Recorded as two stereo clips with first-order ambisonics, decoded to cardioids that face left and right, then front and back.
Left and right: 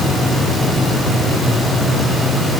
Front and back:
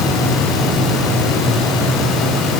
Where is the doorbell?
No doorbell in this recording.